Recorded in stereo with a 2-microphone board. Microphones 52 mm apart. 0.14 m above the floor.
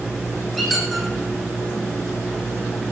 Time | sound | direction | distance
0.6 | a squeak | centre (ahead or behind) | 2.5 m